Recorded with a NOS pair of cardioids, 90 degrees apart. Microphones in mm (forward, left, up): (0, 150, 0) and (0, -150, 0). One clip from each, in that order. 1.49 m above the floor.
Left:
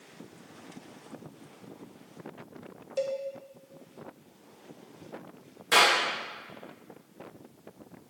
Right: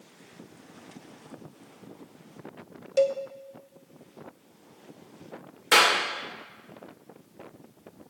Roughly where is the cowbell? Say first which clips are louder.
Right 8 dB; ahead right.